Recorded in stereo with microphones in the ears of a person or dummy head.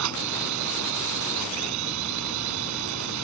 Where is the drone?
80° right.